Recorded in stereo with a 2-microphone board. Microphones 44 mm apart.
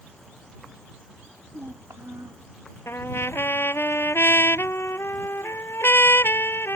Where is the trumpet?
65° left (ahead or behind).